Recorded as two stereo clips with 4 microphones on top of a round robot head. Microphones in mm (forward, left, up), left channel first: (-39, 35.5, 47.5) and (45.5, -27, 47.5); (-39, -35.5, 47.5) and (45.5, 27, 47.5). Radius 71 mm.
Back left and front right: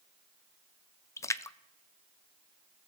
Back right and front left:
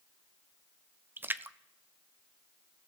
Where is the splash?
95° left, 0.5 m.